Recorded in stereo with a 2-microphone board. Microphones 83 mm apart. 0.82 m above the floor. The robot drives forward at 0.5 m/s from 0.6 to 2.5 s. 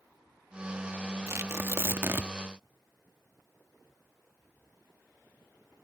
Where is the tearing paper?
40° right (ahead or behind); by 2.3 s 30° right (ahead or behind).